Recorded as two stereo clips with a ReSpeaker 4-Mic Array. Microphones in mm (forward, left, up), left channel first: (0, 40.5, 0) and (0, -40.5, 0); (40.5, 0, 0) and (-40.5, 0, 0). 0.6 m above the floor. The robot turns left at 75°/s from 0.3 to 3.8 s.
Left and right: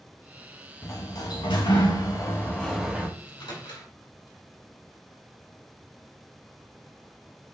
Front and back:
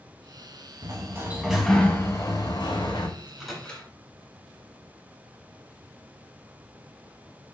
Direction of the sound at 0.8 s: 145° left.